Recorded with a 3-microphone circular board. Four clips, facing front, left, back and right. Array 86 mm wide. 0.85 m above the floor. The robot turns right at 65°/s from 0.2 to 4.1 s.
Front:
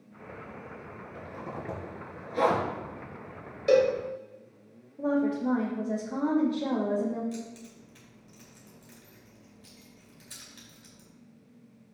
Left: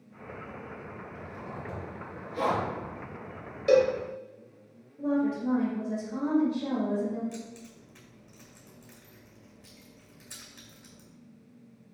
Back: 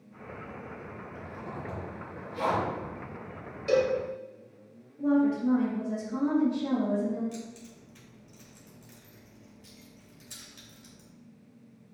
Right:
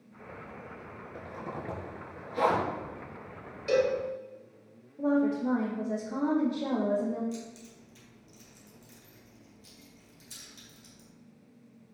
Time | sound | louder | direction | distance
1.1 | a zipper | right 5 dB, front 2 dB | 90° right | 3.5 m
3.7 | a cowbell | left 4 dB, front 3 dB | 45° left | 2 m
5.0 | a woman speaking | right 1 dB, back 2 dB | 35° right | 2.5 m
7.3 | keys jangling | even, front 2 dB | 70° left | 2.5 m